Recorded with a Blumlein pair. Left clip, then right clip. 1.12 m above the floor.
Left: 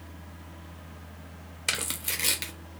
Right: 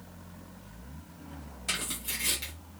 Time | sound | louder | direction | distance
1.7 | tearing paper | left 3 dB | 60° left | 0.7 m